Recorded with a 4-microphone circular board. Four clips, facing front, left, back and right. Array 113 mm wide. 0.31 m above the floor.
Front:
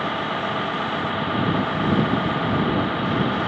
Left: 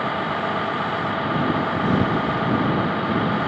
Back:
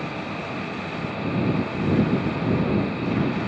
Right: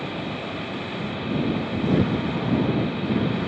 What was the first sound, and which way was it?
A vehicle, 60° left.